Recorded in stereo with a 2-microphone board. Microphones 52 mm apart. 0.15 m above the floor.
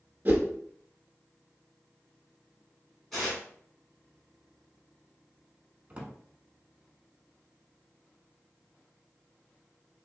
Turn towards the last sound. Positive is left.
turn(degrees=-25)  # may be behind; listen again after turning